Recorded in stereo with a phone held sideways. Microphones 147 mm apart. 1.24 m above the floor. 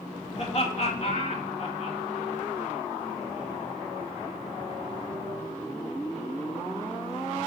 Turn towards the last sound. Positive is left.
turn(degrees=45)  # may be behind; listen again after turning